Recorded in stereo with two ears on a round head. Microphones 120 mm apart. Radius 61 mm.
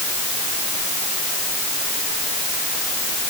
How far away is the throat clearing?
No throat clearing in this recording.